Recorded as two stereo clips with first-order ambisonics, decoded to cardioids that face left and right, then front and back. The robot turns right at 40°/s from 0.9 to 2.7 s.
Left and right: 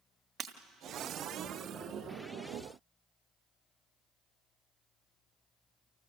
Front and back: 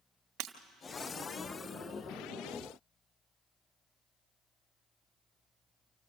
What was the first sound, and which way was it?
Breaking glass, 160° right.